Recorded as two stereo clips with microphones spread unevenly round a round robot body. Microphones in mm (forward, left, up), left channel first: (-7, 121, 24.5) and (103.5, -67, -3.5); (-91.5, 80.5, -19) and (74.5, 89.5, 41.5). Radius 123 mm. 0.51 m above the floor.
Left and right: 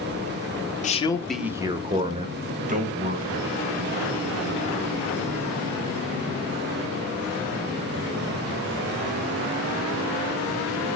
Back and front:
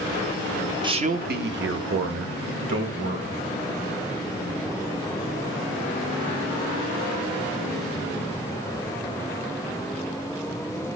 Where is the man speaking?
80° left, 0.8 m; by 3.4 s 15° right, 3 m.